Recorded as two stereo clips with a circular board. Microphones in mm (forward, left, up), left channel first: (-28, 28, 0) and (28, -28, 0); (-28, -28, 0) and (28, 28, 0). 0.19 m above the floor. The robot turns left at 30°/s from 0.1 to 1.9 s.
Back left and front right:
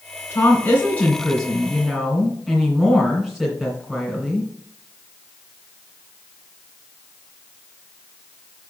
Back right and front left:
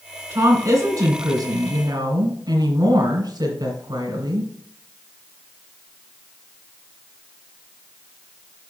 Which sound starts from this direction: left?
A woman speaking, at 0.3 s.